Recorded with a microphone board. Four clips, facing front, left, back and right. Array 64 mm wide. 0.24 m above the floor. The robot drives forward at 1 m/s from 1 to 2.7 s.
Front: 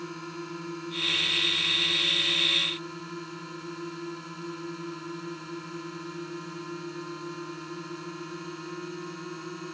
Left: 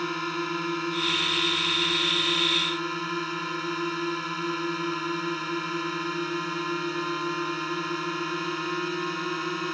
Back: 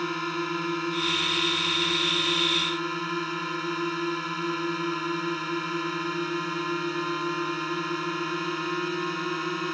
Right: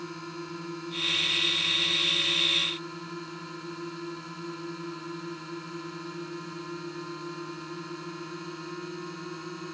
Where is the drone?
140° left.